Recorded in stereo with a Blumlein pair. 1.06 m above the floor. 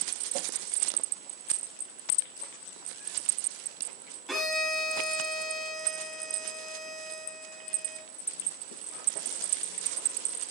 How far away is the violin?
About 7.5 m.